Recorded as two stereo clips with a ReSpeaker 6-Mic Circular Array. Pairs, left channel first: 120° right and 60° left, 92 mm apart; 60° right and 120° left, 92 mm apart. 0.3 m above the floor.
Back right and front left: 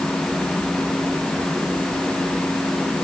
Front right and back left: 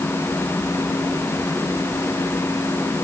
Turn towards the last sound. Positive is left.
No sound to turn to.